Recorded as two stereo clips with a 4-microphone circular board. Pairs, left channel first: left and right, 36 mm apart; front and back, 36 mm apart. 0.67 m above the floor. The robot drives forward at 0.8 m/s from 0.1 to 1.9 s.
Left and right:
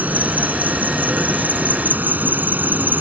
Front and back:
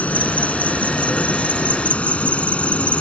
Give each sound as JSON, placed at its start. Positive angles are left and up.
{"t": 0.0, "sound": "an insect", "azimuth_deg": -50}